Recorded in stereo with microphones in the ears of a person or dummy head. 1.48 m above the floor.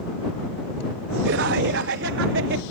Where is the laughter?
60° right (ahead or behind); by 2.6 s 70° right (ahead or behind).